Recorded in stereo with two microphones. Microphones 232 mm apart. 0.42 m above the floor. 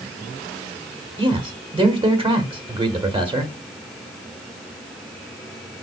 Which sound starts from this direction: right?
A man speaking, at 1.2 s.